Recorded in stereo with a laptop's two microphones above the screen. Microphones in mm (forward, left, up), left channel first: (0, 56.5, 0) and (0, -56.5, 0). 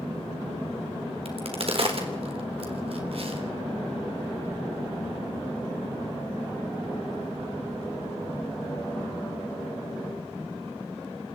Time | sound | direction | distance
1.2 | a crack | 60° right (ahead or behind) | 3.5 m